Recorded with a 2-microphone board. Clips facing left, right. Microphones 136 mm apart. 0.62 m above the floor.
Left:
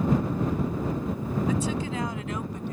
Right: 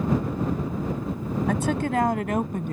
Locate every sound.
1.5 s a woman speaking: 60° right (ahead or behind); by 2.7 s 55° right (ahead or behind)